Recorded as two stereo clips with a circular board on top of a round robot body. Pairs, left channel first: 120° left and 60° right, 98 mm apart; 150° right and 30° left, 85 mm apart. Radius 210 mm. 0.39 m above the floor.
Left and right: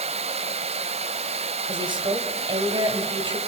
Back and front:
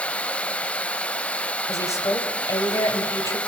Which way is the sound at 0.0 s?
75° right.